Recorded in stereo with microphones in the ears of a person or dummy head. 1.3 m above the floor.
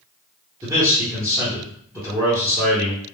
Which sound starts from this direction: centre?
A man speaking, at 0.6 s.